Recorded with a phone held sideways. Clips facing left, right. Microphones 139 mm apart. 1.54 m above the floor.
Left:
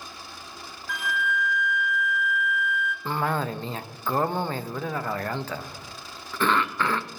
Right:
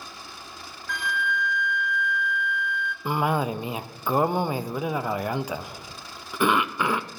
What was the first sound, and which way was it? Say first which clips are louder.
A flute: even; 5° left (ahead or behind).